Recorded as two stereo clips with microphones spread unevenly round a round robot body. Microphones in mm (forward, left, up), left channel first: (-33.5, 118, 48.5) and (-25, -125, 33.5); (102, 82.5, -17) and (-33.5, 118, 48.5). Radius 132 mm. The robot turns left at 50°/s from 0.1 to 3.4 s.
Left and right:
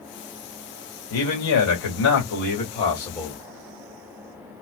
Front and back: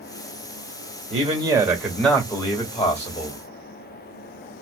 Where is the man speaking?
110° left, 1.9 m; by 3.4 s 5° right, 1.9 m.